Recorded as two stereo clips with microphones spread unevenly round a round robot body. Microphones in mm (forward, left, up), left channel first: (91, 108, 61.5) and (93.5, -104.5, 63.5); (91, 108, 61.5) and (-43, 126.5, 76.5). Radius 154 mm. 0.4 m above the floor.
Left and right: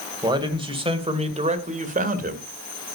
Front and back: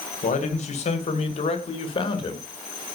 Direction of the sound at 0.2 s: 20° right.